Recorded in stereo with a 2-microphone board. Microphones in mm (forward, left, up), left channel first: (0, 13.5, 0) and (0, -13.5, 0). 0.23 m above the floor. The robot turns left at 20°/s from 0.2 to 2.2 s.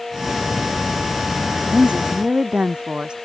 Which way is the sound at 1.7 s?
45° right (ahead or behind).